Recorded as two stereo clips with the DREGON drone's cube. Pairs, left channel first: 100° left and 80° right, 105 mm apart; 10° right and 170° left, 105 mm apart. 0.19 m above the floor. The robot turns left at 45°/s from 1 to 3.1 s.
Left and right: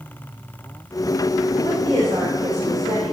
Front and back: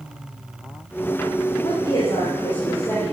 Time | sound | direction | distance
1.6 | a woman speaking | 25° right | 10 m